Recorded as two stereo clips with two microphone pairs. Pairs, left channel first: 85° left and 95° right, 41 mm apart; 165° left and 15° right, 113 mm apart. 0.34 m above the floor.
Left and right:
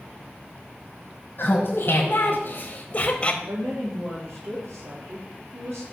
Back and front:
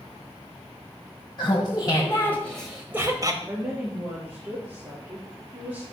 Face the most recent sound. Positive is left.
turn(degrees=-90)